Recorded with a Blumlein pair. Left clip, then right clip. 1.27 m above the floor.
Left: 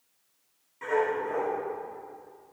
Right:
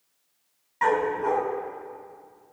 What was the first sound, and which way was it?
A dog barking, 50° right.